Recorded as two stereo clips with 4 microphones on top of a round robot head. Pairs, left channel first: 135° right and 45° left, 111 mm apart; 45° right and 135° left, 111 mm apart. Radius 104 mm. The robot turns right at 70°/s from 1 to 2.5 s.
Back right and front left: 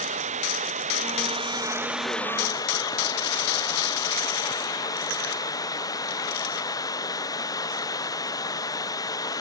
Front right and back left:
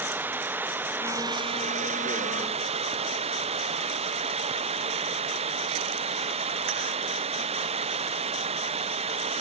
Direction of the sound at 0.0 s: 60° left.